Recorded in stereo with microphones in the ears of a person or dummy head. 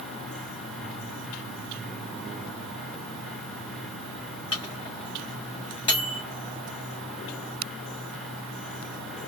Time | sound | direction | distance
4.5 | a microwave | 25° left (ahead or behind) | 0.8 m